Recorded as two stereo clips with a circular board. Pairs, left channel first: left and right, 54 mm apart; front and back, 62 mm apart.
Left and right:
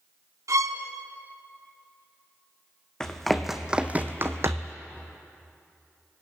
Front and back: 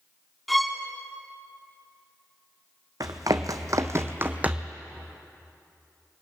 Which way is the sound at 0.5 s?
90° right.